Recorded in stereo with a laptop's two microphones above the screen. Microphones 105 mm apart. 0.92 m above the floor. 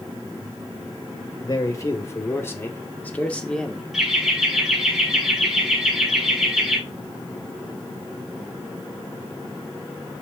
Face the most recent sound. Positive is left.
turn(degrees=-5)  # may be behind; listen again after turning